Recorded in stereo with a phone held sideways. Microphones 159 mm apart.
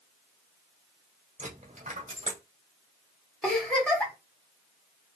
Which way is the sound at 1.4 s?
50° right (ahead or behind).